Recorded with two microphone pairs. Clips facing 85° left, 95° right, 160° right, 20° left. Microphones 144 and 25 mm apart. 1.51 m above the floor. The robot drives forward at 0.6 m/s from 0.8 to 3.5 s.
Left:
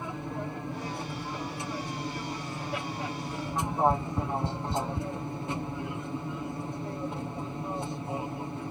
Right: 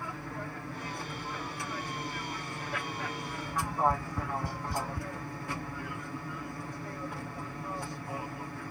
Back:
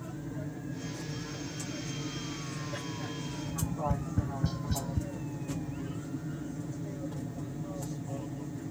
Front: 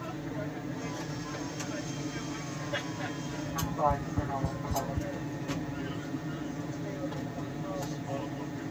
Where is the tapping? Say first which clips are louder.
Left 3 dB, front 6 dB; 150° left.